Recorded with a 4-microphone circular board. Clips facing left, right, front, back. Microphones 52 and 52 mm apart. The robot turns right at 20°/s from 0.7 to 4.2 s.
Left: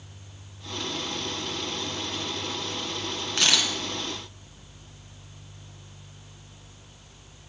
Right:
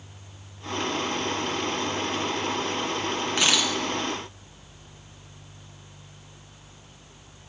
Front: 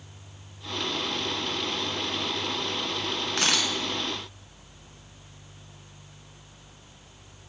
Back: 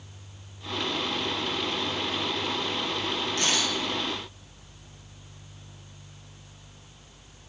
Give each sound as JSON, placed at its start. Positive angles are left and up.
{"t": 3.4, "sound": "a camera shutter", "azimuth_deg": -10, "distance_m": 1.5}